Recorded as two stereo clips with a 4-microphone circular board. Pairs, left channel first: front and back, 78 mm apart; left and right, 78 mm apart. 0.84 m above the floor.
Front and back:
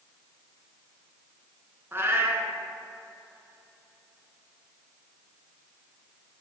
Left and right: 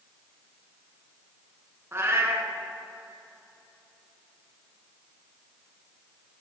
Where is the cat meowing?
135° right, 1.0 m.